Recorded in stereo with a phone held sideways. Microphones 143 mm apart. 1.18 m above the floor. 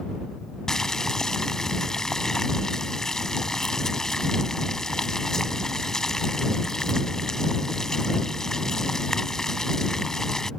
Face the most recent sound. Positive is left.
turn(degrees=5)  # may be behind; listen again after turning